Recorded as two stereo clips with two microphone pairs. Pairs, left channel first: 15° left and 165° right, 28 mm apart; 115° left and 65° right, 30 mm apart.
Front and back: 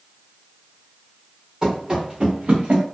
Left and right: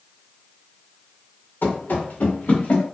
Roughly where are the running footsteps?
Behind left.